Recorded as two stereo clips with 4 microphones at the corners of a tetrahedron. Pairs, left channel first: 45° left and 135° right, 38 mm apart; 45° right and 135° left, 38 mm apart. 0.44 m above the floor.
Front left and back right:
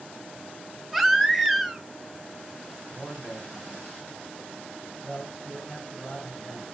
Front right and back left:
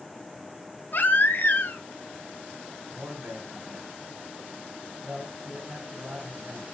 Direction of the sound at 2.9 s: 120° left.